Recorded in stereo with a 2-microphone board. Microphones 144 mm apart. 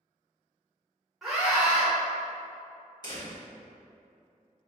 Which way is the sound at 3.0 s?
30° left (ahead or behind).